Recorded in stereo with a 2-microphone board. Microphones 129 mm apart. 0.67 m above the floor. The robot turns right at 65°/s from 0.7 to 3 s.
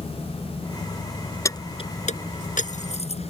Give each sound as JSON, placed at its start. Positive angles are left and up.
{"t": 1.4, "sound": "keys jangling", "side_deg": 25}